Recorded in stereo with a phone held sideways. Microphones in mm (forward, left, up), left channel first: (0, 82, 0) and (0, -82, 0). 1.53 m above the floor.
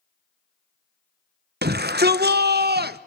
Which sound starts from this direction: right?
A shout, at 1.6 s.